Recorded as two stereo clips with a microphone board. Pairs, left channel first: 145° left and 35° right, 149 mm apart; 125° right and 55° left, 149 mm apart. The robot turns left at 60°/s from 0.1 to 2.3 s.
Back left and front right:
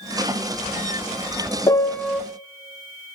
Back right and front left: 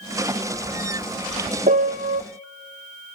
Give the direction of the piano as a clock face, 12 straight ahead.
9 o'clock.